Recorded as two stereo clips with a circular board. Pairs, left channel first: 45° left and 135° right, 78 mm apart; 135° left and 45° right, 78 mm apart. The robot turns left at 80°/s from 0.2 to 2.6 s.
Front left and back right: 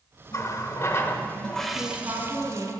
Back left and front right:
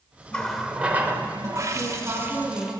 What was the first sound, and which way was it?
A running tap, 65° left.